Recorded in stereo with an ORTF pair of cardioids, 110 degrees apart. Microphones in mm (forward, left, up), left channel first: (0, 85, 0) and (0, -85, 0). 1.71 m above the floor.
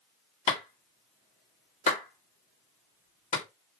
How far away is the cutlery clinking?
I don't hear cutlery clinking.